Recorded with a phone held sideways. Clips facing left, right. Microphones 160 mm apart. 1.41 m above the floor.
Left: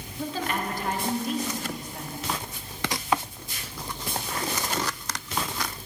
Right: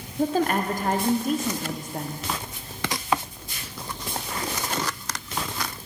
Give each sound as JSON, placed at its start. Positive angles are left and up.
{"t": 0.2, "sound": "a woman speaking", "side_deg": -45, "distance_m": 0.6}